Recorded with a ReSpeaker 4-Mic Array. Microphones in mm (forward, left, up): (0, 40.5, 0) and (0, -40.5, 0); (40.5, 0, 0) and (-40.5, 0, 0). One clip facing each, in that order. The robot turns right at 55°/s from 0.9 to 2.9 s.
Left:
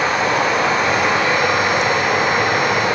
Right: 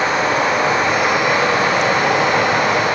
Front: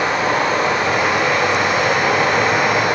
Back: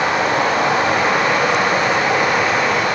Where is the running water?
175° right, 3.5 m; by 3.0 s 65° right, 3.5 m.